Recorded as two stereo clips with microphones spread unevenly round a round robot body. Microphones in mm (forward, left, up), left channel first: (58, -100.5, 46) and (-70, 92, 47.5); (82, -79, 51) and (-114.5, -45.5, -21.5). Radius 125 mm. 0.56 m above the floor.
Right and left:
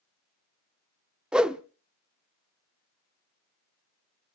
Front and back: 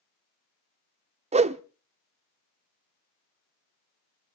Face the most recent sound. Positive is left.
turn(degrees=-150)